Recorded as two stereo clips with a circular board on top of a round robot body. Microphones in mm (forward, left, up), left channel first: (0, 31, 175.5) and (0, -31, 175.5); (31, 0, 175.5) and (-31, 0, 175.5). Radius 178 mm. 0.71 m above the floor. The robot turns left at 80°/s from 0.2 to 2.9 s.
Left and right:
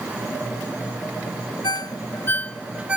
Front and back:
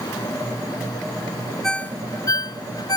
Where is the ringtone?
85° left; by 3.0 s 15° right.